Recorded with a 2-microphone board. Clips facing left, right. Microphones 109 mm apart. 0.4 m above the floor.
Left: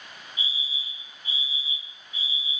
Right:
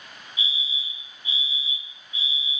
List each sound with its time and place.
0.4 s a fire alarm: 45° left (ahead or behind), 3.5 m